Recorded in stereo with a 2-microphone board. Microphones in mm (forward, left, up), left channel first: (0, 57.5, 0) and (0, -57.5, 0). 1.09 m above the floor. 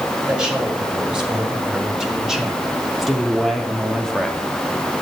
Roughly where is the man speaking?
Centre.